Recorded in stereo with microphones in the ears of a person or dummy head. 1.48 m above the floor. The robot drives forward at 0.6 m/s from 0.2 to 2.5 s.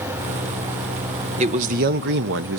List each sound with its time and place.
1.4 s a man speaking: 40° right (ahead or behind), 0.9 m; by 2.6 s 70° right (ahead or behind), 0.6 m